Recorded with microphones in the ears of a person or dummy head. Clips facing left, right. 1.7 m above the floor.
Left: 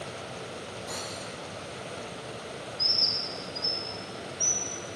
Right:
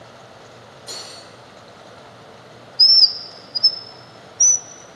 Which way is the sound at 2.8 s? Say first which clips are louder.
Left 2 dB; 80° right.